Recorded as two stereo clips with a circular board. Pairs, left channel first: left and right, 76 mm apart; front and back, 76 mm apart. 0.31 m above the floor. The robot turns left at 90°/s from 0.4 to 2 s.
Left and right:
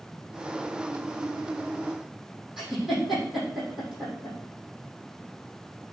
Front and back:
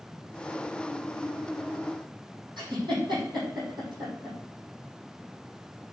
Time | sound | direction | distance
2.6 | a giggle | 175° right | 5.5 m